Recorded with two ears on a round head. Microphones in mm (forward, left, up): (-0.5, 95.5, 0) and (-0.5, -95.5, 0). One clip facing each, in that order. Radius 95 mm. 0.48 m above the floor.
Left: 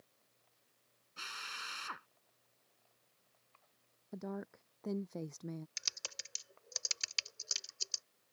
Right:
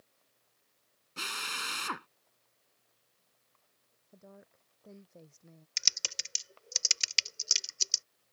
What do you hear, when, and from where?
1.2 s a drill: 75° right (ahead or behind)
4.1 s a woman speaking: 85° left
5.8 s typing on a keyboard: 40° right (ahead or behind)